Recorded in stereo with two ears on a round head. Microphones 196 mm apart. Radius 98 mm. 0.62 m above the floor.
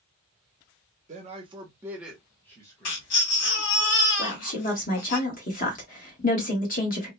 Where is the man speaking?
35° right (ahead or behind), 0.9 m; by 3.9 s 30° left (ahead or behind), 1.4 m.